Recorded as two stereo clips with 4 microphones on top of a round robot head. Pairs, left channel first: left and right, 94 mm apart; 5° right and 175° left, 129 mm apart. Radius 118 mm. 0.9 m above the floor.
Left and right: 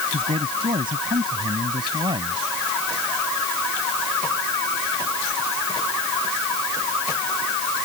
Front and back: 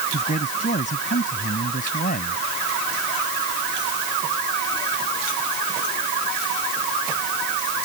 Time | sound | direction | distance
0.1 | a man speaking | 45° right | ?